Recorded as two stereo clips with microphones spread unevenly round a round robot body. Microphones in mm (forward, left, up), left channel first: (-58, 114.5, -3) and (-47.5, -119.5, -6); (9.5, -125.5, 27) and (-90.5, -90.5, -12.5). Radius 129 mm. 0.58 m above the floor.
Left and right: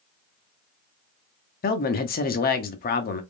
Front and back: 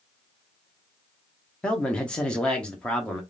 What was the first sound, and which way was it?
A man speaking, 90° left.